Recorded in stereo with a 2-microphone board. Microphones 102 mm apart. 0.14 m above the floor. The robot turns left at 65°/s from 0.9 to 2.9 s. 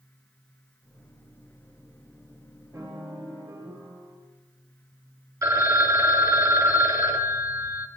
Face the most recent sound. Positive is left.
turn(degrees=-35)  # may be behind; listen again after turning